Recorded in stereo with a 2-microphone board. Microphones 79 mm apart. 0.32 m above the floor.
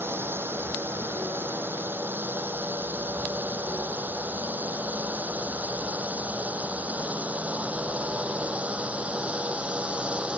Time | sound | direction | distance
0.0 | a drone | 30° right (ahead or behind) | ?